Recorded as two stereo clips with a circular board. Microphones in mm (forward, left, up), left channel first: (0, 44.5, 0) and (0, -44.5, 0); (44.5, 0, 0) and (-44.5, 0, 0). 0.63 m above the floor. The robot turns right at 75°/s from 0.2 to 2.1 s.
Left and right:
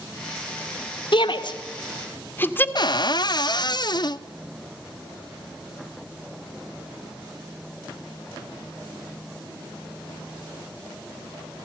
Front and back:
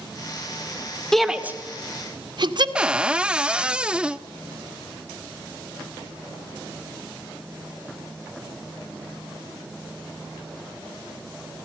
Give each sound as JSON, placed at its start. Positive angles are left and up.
{"t": 1.1, "sound": "a shout", "azimuth_deg": 80, "distance_m": 1.7}
{"t": 2.8, "sound": "a cupboard door", "azimuth_deg": 100, "distance_m": 0.5}